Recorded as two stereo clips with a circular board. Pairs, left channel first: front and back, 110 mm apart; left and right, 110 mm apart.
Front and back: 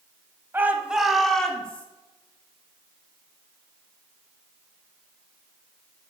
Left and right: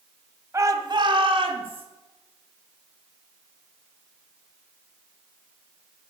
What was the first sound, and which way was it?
A shout, 130° right.